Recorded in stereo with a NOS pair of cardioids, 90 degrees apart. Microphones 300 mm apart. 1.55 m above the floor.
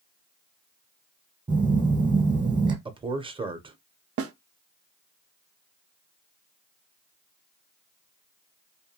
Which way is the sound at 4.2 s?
50° right.